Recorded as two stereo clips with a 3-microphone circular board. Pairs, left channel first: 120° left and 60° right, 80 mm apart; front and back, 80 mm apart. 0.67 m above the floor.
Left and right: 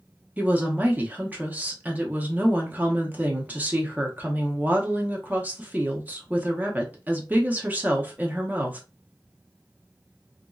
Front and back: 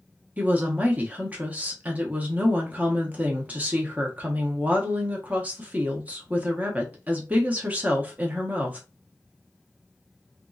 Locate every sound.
0.4 s a woman speaking: 120° right, 0.7 m